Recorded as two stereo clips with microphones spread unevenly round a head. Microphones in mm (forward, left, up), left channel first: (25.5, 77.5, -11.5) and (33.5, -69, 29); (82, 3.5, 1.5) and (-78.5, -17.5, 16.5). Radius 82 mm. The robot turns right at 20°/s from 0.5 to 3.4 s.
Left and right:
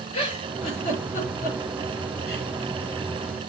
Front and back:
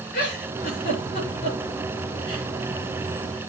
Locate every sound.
0.1 s a giggle: 40° left, 6 m; by 2.5 s 80° left, 6 m